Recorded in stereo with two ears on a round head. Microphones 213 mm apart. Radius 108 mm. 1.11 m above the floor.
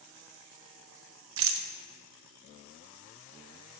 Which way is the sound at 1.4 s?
60° right (ahead or behind).